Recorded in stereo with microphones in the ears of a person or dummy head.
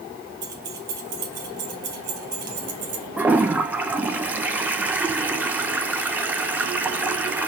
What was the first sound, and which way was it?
Keys jangling, 60° right (ahead or behind).